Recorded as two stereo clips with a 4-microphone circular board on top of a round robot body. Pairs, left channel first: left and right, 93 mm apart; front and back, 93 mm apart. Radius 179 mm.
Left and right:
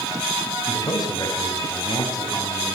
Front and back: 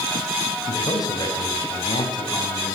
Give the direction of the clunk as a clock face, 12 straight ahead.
I don't hear a clunk.